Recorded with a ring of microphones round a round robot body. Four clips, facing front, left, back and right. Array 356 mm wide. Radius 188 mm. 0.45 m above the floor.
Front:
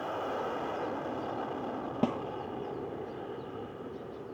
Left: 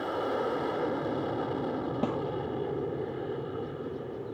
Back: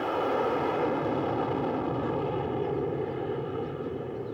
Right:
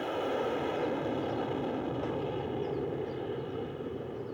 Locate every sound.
0.0 s an aircraft: 165° left
2.0 s a snare drum: 35° left